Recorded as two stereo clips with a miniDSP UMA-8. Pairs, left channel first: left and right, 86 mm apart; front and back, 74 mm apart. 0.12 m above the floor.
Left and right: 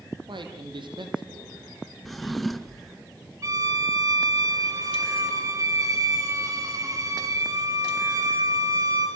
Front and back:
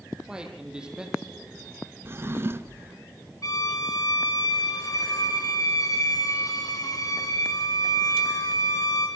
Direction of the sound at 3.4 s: 40° right.